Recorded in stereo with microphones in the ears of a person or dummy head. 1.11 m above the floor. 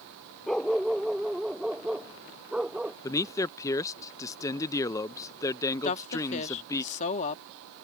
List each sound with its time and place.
0.5 s a dog barking: 5° left (ahead or behind); by 2.9 s 5° right (ahead or behind)
3.0 s a man speaking: 15° left (ahead or behind)
5.8 s a woman speaking: 40° left (ahead or behind)